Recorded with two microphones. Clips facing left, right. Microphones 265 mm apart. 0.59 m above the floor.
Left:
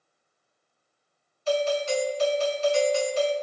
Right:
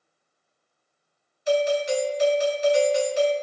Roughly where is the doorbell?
Centre.